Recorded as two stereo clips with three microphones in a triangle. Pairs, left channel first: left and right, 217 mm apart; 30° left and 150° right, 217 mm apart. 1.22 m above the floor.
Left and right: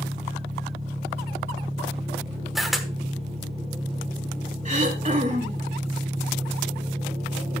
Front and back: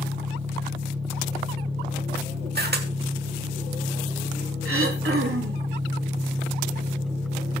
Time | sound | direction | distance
0.0 | an engine running | 150° right | 2 m
2.5 | a camera shutter | straight behind | 1.2 m
4.7 | throat clearing | 145° right | 2 m